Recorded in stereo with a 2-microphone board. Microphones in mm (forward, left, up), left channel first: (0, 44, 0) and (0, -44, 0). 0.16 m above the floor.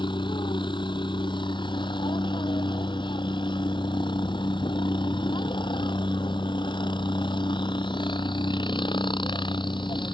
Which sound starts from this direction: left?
A helicopter, at 0.0 s.